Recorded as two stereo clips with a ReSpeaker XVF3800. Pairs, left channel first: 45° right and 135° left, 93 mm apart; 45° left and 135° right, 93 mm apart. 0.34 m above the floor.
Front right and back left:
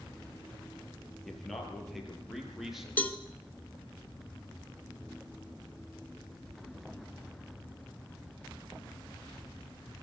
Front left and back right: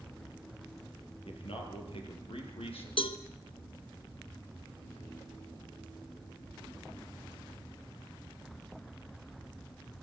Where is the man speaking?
40° left, 10 m; by 2.9 s 50° left, 10 m.